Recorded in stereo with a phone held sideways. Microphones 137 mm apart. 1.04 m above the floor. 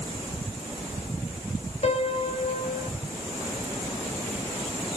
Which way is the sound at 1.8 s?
50° left (ahead or behind).